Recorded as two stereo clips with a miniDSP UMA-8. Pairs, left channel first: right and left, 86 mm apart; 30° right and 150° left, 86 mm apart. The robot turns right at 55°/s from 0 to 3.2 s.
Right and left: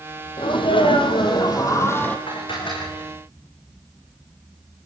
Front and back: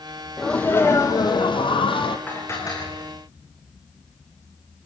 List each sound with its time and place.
0.4 s a sneeze: 115° right, 5 m; by 2.2 s 15° right, 5 m
2.3 s dishes clattering: 100° right, 8 m; by 3.1 s 55° right, 8 m